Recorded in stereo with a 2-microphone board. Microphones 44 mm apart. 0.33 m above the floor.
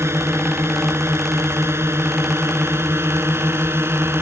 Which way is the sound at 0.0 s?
70° right (ahead or behind).